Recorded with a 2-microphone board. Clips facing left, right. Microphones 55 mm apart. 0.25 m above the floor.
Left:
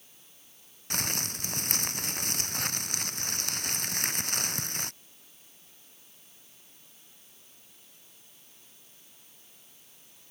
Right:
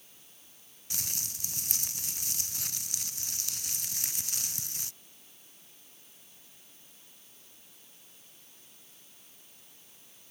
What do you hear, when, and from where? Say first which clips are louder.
0.9 s crumpling: left 10 dB; 55° left (ahead or behind)